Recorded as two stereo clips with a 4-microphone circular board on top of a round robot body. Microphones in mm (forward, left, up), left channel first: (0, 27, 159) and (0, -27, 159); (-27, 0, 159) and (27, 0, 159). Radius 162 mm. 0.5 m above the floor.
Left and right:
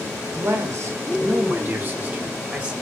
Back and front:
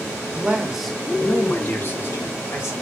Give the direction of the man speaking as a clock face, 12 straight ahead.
2 o'clock.